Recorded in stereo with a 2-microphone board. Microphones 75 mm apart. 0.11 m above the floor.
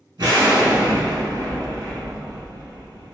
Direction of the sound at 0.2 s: 60° right (ahead or behind).